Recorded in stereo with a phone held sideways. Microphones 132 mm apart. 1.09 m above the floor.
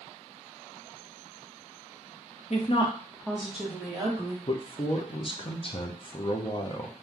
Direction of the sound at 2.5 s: 55° left (ahead or behind).